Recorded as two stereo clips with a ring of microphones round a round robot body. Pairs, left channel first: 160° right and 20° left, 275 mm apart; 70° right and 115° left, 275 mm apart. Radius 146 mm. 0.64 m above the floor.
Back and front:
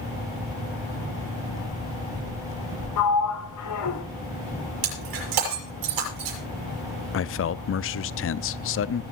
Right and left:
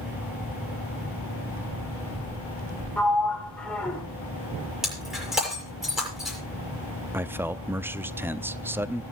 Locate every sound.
3.0 s a sliding door: 155° right, 2.5 m
4.8 s breaking glass: 25° left, 7 m
7.1 s a man speaking: 170° right, 0.7 m